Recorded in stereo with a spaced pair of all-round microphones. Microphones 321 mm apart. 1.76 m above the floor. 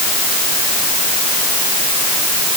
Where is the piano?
No piano in this recording.